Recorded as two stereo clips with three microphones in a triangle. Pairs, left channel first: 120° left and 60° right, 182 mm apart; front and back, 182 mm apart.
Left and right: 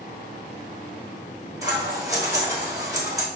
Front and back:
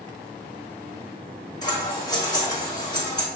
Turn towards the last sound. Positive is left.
turn(degrees=-25)